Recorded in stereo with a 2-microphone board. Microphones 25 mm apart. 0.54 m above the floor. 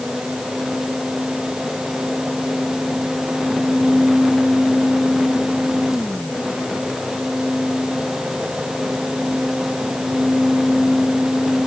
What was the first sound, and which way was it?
Only background noise.